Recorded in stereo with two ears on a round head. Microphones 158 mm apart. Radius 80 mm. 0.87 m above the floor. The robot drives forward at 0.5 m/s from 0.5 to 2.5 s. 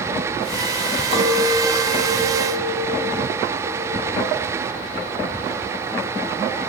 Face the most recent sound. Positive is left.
turn(degrees=-25)  # may be behind; listen again after turning